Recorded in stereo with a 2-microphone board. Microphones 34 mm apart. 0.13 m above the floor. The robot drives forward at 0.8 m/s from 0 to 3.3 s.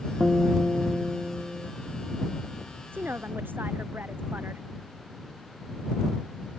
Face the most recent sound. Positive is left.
turn(degrees=-65)  # may be behind; listen again after turning